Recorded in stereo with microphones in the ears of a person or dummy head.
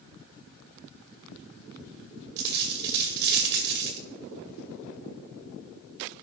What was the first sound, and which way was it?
A dropped coin, 60° right (ahead or behind).